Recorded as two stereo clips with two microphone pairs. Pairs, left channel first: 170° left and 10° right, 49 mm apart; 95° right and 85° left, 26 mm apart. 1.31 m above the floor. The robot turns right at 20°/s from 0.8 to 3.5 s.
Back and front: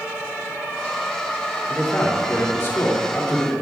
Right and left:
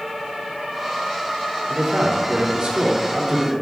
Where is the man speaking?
120° left, 2.5 m; by 3.5 s 155° left, 2.5 m.